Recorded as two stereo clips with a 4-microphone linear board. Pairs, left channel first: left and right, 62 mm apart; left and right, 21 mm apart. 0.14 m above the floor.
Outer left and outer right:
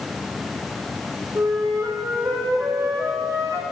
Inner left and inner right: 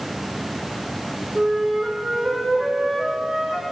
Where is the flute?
55° right (ahead or behind), 1.6 m.